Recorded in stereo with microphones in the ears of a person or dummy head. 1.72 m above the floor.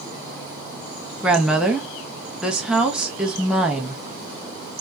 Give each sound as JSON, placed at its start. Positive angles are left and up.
{"t": 1.2, "sound": "a woman speaking", "side_deg": -5, "distance_m": 0.6}